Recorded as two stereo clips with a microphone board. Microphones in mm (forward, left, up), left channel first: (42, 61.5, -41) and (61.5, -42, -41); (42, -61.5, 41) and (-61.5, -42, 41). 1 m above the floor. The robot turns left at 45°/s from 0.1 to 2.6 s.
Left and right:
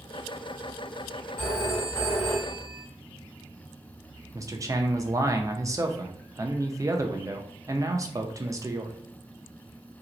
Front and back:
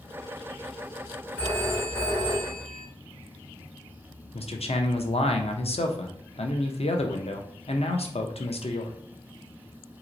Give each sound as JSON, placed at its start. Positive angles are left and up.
{"t": 1.4, "sound": "a phone ringing", "azimuth_deg": 65, "distance_m": 2.5}
{"t": 4.3, "sound": "a man speaking", "azimuth_deg": -20, "distance_m": 0.6}